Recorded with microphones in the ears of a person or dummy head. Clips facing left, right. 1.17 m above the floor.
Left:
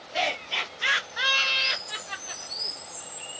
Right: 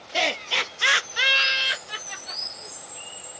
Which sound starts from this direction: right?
Laughter, at 0.1 s.